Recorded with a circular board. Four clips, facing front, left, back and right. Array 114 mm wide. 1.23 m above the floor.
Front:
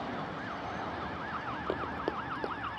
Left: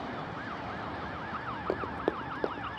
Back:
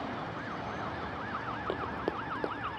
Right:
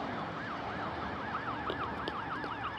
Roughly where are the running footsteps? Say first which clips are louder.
Left 5 dB, even; left.